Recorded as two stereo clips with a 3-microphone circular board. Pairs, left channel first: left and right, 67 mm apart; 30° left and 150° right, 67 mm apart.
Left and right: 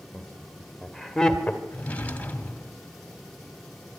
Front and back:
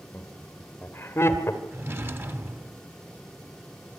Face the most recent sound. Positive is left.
turn(degrees=155)